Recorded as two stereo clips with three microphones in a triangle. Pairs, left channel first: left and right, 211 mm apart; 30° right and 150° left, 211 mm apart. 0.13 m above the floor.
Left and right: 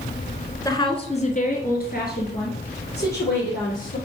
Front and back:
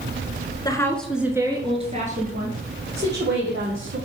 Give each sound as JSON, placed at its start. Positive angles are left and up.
{"t": 0.7, "sound": "a woman speaking", "azimuth_deg": 25, "distance_m": 1.4}